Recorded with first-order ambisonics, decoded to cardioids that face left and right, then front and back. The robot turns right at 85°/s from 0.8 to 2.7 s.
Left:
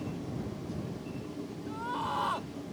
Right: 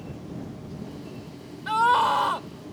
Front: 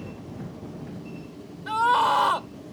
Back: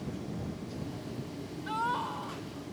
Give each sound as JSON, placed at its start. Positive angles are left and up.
{"t": 1.7, "sound": "a scream", "azimuth_deg": -75}